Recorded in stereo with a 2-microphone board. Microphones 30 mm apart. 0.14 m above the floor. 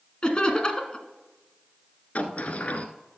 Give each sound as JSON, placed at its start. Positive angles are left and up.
{"t": 0.2, "sound": "laughter", "side_deg": 30, "distance_m": 1.2}
{"t": 2.1, "sound": "a sliding door", "side_deg": 55, "distance_m": 0.8}